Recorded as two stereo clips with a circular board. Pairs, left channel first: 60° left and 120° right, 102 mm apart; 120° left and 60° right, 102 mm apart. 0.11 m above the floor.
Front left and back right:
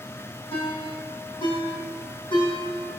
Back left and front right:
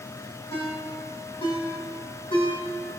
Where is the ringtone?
90° left, 4 m.